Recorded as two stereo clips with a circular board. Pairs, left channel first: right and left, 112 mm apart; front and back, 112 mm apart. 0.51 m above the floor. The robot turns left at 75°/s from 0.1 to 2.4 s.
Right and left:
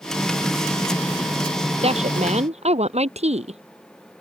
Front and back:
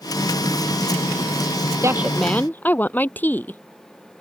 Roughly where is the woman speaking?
Behind left.